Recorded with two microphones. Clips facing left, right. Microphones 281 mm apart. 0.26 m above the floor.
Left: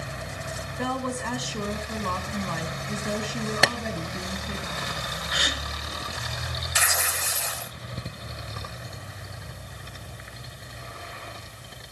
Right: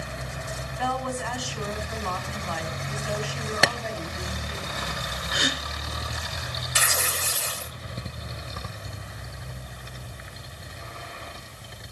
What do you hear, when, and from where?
0.8 s a woman speaking: 45° left (ahead or behind), 2.5 m
3.6 s tapping: centre (ahead or behind), 0.6 m
5.3 s a gasp: 55° right (ahead or behind), 3 m
6.8 s tearing paper: 40° right (ahead or behind), 0.6 m